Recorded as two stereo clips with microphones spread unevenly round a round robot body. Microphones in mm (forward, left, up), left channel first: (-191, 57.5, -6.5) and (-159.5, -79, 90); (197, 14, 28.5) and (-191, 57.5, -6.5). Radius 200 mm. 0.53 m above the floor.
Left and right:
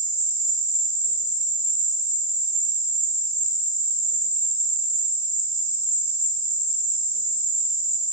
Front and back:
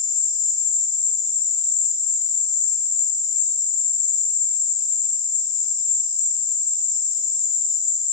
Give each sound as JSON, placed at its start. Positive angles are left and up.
{"t": 0.0, "sound": "an insect", "azimuth_deg": 35, "distance_m": 1.8}